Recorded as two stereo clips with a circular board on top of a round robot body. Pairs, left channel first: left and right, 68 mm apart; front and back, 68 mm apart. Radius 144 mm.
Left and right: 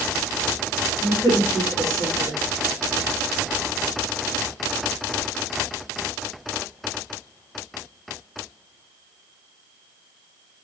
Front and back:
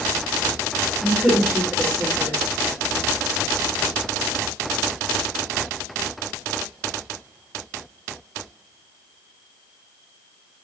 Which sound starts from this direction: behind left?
A woman speaking, at 1.0 s.